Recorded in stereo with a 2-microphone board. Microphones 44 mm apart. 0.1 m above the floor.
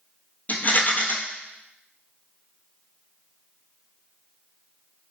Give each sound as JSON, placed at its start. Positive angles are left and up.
{"t": 0.5, "sound": "a rattle", "side_deg": 45, "distance_m": 0.6}